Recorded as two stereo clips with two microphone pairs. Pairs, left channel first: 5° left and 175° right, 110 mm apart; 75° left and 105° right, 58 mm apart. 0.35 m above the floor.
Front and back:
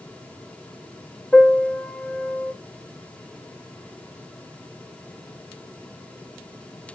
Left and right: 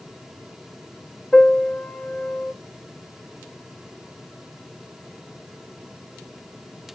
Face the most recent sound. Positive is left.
turn(degrees=55)